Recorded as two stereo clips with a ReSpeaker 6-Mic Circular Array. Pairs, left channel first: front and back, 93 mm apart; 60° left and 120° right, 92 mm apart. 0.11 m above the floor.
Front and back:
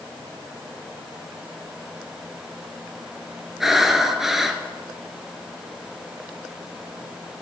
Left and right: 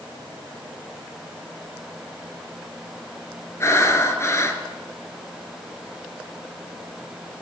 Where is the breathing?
95° left, 0.9 m.